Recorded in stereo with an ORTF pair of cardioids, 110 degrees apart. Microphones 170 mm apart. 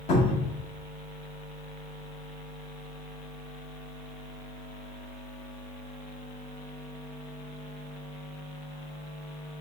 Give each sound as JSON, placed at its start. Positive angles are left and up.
{"t": 0.1, "sound": "a cupboard door", "azimuth_deg": 45, "distance_m": 1.5}